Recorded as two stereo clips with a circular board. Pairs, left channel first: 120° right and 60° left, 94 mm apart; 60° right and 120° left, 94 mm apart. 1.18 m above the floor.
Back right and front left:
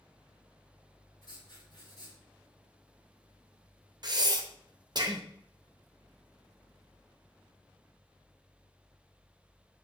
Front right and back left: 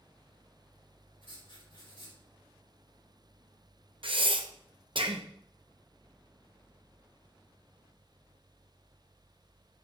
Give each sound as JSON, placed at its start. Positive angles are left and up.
{"t": 1.2, "sound": "writing", "azimuth_deg": -80, "distance_m": 4.0}
{"t": 4.0, "sound": "breathing", "azimuth_deg": 100, "distance_m": 0.8}